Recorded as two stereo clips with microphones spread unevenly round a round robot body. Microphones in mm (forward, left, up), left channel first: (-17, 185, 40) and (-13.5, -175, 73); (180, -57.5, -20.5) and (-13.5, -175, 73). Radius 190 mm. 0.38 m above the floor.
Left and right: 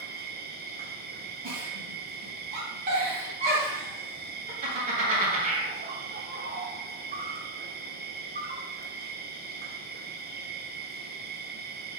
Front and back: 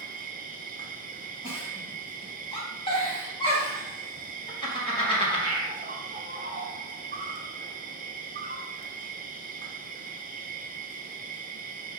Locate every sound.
0.0 s an insect: 90° right, 0.9 m
1.4 s a giggle: 20° right, 3 m